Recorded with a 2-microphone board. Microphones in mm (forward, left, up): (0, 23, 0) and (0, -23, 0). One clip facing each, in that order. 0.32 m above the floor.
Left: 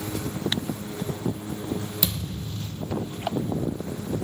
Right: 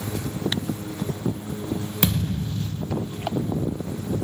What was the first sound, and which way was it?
A thud, 55° right (ahead or behind).